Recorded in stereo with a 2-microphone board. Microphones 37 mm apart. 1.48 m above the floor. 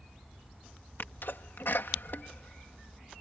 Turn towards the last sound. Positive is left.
turn(degrees=75)  # may be behind; listen again after turning